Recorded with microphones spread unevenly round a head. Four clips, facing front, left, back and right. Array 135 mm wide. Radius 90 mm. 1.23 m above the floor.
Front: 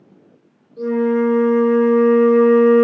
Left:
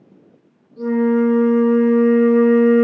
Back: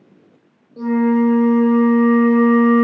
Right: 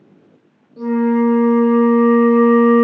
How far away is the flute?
About 0.9 m.